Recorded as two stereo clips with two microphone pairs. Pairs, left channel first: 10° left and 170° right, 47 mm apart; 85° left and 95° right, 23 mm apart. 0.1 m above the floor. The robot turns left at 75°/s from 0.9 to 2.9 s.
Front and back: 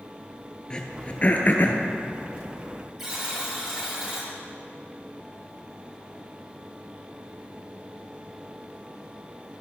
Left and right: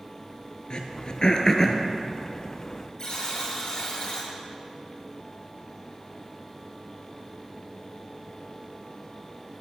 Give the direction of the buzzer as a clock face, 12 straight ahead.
8 o'clock.